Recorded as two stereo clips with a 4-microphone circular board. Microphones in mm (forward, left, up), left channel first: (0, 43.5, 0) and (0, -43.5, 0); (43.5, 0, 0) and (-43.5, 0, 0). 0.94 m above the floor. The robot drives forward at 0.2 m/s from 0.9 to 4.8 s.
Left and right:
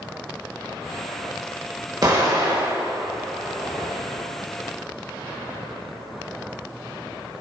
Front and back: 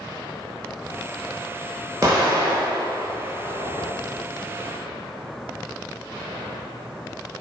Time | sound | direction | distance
2.0 | an explosion | 130° right | 1.1 m